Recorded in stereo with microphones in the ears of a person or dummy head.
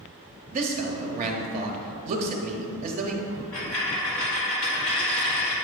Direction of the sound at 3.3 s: 10° left (ahead or behind).